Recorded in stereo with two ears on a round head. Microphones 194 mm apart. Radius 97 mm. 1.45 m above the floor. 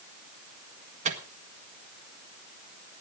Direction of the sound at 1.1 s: 35° right (ahead or behind).